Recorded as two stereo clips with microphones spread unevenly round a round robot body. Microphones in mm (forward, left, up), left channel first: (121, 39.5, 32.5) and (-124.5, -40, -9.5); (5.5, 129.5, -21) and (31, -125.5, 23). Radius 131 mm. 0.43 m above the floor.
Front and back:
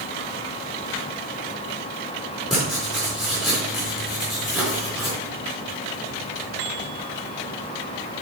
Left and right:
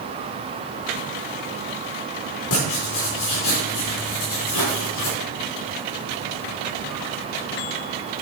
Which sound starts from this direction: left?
Writing, at 2.5 s.